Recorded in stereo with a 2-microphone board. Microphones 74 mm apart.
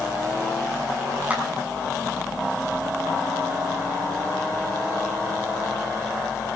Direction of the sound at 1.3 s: 20° right (ahead or behind).